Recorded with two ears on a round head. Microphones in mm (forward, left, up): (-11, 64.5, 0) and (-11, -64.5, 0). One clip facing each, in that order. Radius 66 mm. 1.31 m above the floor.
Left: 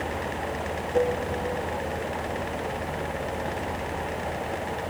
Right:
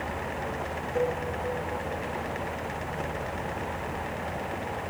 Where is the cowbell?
25° left (ahead or behind), 0.7 m.